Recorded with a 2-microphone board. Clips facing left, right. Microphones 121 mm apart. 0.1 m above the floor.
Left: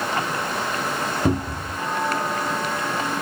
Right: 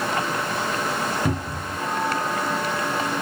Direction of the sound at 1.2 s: 25° left (ahead or behind).